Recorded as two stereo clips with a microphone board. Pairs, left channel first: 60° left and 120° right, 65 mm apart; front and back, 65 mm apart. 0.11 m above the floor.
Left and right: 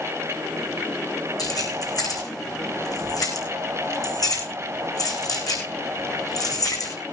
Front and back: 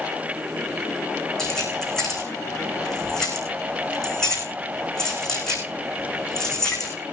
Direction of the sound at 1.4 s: 80° left.